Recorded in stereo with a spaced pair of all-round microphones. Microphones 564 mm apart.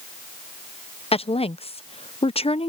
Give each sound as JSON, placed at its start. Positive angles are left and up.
{"t": 1.1, "sound": "a woman speaking", "side_deg": 10}